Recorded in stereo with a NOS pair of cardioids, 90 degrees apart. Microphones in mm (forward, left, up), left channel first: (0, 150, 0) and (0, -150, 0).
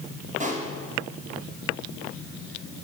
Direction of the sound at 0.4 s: 25° right.